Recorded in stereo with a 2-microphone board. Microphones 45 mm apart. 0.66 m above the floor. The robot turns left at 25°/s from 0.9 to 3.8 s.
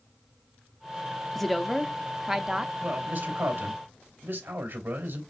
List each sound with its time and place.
1.4 s a woman speaking: 5° left, 0.5 m; by 2.7 s 30° right, 0.5 m
2.8 s a man speaking: 55° right (ahead or behind), 2.5 m; by 5.2 s 70° right (ahead or behind), 2.5 m